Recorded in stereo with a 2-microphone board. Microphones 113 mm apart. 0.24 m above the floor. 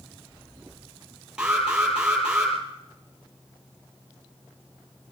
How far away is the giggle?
I don't hear a giggle.